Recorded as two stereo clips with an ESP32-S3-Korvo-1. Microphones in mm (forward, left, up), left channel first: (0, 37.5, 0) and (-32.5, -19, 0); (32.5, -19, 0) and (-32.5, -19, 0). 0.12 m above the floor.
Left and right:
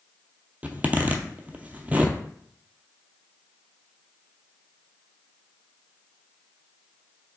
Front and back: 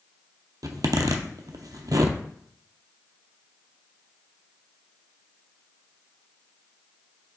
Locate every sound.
0.6 s a zipper: 175° left, 0.5 m